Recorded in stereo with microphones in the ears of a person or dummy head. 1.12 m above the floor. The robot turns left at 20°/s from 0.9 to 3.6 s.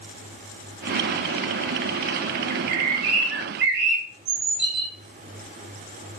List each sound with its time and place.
2.5 s a bird: 45° right (ahead or behind), 0.8 m; by 4.9 s 60° right (ahead or behind), 0.8 m